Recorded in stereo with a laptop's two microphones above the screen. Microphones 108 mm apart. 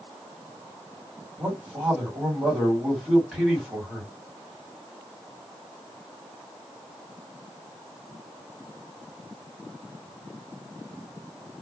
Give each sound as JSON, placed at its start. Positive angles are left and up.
{"t": 1.4, "sound": "a man speaking", "side_deg": -5, "distance_m": 1.6}